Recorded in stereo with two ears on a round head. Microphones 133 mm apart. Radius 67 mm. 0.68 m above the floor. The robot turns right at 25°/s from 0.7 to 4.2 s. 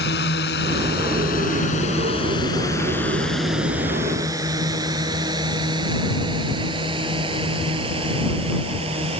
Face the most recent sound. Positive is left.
turn(degrees=-40)  # may be behind; listen again after turning